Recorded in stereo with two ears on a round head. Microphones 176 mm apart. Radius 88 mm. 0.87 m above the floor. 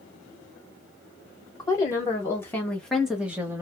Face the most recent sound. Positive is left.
turn(degrees=-15)  # may be behind; listen again after turning